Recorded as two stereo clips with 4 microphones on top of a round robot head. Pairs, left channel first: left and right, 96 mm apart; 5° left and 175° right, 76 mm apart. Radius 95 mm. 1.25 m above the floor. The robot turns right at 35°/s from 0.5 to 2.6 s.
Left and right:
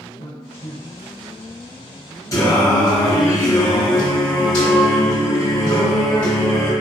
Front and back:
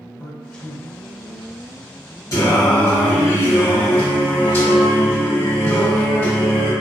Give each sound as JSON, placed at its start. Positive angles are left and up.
{"t": 0.2, "sound": "a man speaking", "azimuth_deg": 85, "distance_m": 1.1}
{"t": 2.3, "sound": "singing", "azimuth_deg": 40, "distance_m": 0.9}